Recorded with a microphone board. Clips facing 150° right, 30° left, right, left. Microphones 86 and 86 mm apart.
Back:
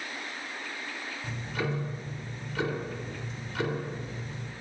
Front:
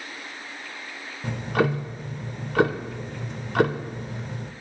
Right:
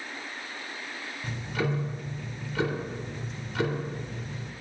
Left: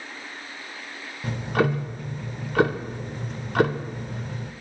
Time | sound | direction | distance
1.2 | ticking | 60° left | 0.8 m